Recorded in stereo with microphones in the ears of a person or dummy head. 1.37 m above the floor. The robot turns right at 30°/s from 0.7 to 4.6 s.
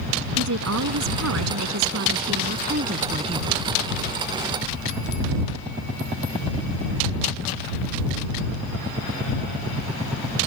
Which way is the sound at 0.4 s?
110° right.